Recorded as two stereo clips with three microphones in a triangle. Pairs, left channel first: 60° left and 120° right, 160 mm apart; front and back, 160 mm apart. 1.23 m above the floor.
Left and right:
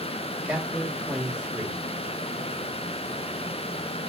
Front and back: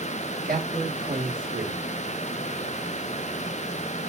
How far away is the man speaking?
About 1.8 m.